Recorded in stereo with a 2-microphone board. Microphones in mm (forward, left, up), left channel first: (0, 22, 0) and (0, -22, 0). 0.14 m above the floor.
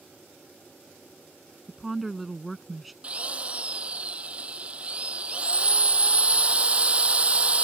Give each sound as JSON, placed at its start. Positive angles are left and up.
{"t": 1.7, "sound": "a woman speaking", "side_deg": 0}
{"t": 3.0, "sound": "a drill", "side_deg": -30}